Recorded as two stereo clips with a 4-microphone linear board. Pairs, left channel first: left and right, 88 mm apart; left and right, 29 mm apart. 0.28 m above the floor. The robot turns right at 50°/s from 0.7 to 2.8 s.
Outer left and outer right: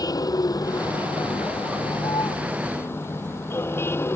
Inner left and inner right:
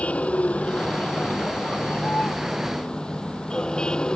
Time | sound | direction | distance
0.0 | a vehicle | 45° left | ?